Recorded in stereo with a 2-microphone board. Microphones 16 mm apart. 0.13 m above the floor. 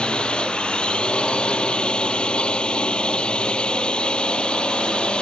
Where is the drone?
60° left (ahead or behind).